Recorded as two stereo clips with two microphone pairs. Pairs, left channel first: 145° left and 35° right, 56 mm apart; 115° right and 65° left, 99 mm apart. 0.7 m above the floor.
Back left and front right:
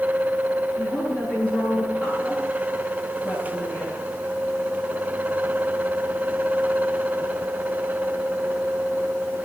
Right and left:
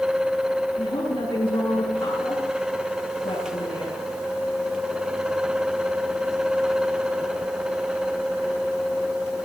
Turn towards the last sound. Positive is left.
turn(degrees=-155)